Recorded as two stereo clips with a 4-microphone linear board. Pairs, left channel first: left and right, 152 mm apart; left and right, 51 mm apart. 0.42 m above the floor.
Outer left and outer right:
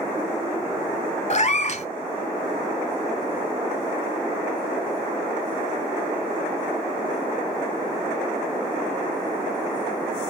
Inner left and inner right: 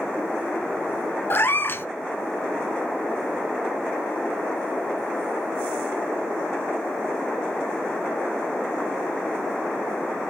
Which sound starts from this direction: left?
A cat meowing, at 1.3 s.